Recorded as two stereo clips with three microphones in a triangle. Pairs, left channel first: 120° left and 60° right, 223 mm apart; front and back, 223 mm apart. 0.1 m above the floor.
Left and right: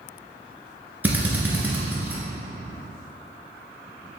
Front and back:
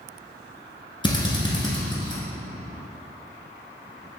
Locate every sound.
1.0 s a drill: 5° left, 0.9 m